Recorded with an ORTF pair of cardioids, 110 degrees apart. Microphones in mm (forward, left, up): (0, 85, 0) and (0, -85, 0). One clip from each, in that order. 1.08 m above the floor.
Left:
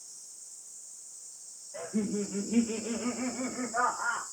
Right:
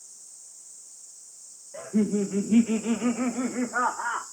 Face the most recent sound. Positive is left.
turn(degrees=-75)